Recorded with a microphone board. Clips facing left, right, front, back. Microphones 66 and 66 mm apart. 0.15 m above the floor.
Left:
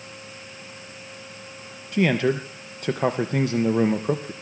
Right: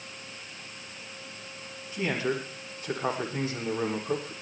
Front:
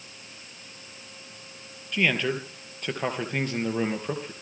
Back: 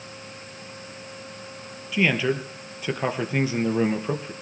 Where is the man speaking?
95° left, 3 m.